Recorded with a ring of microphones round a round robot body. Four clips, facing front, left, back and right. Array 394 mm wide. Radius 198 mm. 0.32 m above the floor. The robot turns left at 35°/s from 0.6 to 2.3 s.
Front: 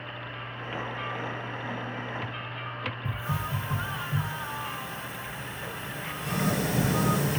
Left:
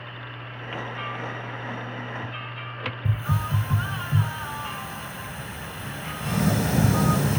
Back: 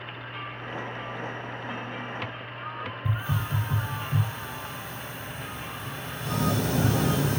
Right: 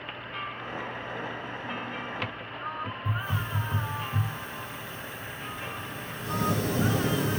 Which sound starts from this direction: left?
A hiss, at 3.0 s.